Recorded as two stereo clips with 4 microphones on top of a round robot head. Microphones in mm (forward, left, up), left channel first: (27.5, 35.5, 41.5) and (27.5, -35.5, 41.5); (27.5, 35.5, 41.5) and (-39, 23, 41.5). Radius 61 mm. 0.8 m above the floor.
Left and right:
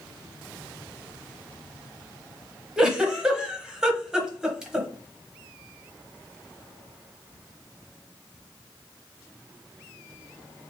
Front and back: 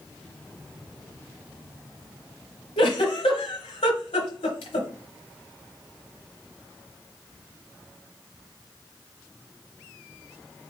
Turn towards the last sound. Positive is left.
turn(degrees=-10)